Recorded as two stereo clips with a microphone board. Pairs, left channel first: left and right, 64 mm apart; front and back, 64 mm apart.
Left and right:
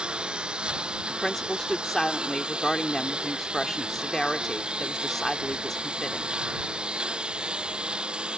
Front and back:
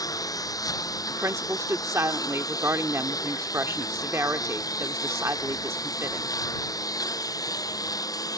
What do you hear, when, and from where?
0.0 s a lawn mower: 15° right
1.1 s a woman speaking: 175° left